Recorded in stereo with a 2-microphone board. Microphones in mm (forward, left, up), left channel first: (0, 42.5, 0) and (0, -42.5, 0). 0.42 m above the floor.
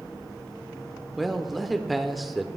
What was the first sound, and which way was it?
A man speaking, centre (ahead or behind).